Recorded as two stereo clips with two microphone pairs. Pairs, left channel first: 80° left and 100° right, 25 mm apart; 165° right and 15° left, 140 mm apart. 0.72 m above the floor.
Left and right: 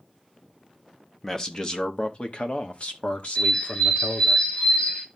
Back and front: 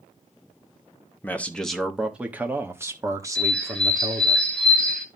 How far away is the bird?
About 2 m.